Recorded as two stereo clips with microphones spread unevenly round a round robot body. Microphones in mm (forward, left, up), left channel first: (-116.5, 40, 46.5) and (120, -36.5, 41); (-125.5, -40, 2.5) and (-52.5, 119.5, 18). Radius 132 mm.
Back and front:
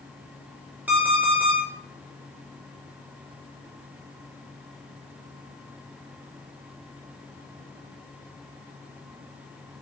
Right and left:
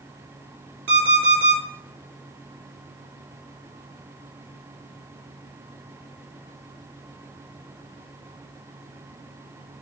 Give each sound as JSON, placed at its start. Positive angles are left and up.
{"t": 0.9, "sound": "an alarm clock", "azimuth_deg": 65, "distance_m": 3.5}